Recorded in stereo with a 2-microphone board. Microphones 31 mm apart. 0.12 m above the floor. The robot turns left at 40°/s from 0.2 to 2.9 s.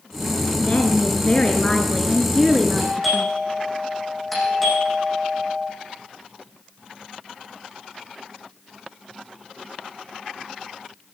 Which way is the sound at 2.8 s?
10° left (ahead or behind).